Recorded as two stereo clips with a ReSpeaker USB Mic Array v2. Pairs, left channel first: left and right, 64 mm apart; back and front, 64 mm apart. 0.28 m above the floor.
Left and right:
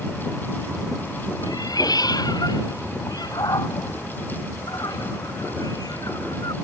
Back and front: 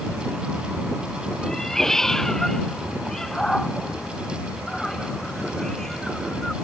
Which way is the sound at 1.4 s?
95° left.